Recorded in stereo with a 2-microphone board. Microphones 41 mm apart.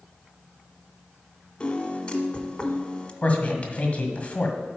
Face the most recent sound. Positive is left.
turn(degrees=35)  # may be behind; listen again after turning